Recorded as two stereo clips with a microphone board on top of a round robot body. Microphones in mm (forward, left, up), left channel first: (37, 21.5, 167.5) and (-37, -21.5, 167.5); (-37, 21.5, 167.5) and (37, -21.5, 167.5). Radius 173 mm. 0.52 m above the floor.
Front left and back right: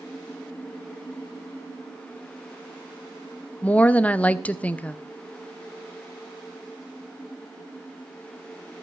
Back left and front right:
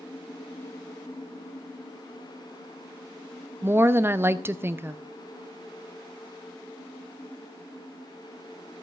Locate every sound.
3.6 s a woman speaking: 20° right, 0.9 m